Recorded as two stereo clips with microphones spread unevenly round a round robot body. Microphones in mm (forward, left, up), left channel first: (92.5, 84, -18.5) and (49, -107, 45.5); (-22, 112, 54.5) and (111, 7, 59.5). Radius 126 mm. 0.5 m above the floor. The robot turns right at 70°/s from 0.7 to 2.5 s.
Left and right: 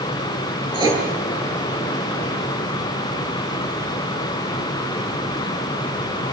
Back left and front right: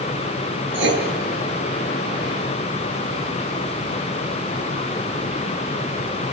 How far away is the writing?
About 9 m.